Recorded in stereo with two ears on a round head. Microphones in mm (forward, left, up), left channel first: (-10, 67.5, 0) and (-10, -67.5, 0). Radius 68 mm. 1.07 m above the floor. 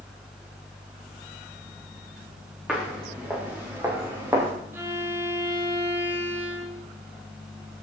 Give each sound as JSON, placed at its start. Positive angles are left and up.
{"t": 2.7, "sound": "footsteps", "side_deg": -5, "distance_m": 6.5}
{"t": 4.7, "sound": "a violin", "side_deg": -15, "distance_m": 2.0}